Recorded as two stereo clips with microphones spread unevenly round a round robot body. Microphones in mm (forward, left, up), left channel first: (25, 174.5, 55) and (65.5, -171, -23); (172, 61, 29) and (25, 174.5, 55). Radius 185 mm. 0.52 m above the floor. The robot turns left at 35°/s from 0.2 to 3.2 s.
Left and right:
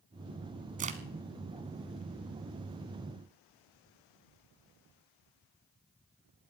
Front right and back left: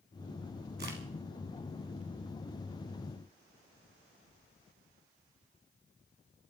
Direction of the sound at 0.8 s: 160° right.